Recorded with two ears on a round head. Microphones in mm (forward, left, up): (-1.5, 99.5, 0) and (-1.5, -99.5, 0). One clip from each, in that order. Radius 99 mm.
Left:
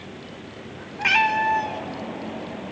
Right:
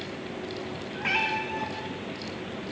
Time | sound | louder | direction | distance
1.0 | a cat meowing | left 8 dB | 45° left (ahead or behind) | 1.8 m